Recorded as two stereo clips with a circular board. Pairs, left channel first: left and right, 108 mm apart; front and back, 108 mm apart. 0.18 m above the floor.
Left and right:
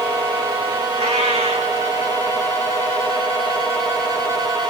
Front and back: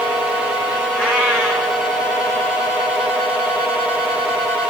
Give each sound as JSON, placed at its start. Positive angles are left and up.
{"t": 0.9, "sound": "a cat meowing", "azimuth_deg": -105, "distance_m": 9.0}